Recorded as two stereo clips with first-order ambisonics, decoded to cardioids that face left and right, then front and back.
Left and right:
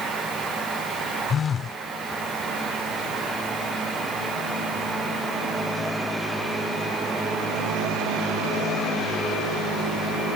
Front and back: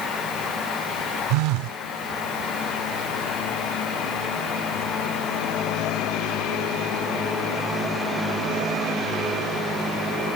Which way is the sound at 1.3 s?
155° left.